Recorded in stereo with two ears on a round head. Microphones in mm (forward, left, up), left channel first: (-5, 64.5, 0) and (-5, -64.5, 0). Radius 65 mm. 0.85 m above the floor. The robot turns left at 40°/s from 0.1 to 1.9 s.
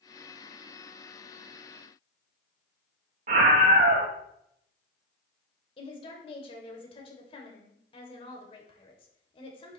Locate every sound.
3.3 s a scream: 45° right (ahead or behind), 0.9 m
5.8 s a woman speaking: 40° left (ahead or behind), 3 m